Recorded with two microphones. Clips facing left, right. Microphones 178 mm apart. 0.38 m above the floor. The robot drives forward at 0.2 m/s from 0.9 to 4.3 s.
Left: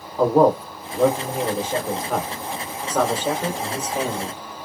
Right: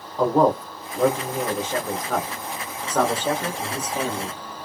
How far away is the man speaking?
About 0.8 m.